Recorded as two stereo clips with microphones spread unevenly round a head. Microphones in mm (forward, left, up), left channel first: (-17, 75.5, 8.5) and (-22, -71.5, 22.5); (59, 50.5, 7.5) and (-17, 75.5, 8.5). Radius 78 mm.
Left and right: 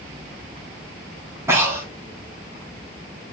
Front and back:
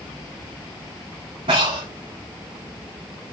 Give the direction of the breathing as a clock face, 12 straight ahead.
5 o'clock.